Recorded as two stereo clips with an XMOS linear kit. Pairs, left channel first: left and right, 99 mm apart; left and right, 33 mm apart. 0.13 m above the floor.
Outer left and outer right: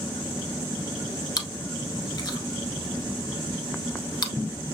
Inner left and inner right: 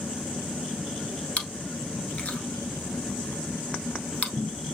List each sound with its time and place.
1.4 s chewing: 40° left (ahead or behind), 0.9 m